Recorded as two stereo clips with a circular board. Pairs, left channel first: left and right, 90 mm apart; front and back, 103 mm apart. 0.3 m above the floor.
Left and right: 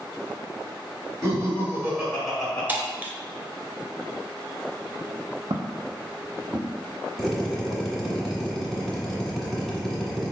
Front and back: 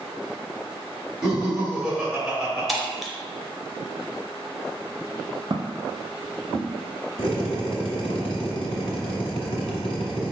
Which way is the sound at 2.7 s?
90° right.